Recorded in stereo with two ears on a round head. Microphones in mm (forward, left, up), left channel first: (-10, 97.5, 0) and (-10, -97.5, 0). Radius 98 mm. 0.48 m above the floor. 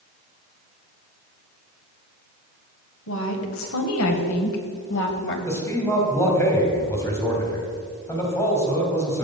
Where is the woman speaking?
65° left (ahead or behind), 2.5 m; by 5.4 s 50° left (ahead or behind), 2 m.